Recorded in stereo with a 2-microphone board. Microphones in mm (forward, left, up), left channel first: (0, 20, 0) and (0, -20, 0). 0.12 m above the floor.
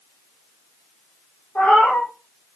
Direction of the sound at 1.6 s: 65° left (ahead or behind).